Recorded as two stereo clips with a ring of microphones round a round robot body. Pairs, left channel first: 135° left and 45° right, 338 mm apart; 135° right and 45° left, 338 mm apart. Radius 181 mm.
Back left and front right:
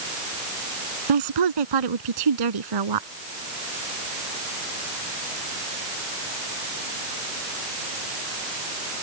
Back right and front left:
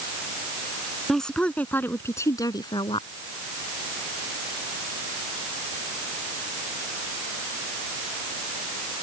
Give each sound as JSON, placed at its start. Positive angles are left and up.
{"t": 1.1, "sound": "a woman speaking", "azimuth_deg": -45}